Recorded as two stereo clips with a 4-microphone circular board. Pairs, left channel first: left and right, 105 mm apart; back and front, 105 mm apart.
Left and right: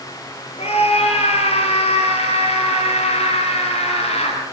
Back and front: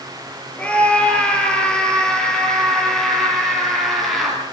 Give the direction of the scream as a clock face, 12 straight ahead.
9 o'clock.